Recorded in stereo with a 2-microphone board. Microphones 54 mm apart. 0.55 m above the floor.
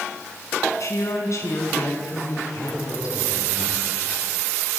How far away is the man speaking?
About 9 m.